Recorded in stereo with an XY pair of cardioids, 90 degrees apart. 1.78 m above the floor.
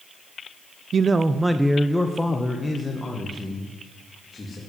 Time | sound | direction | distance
0.9 | a man speaking | 50° right | 0.7 m